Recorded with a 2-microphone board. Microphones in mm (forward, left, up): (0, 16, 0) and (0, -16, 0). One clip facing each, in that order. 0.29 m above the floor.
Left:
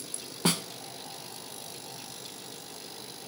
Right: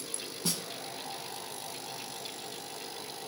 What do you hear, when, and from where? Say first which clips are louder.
0.5 s a snare drum: left 8 dB; 65° left (ahead or behind), 0.5 m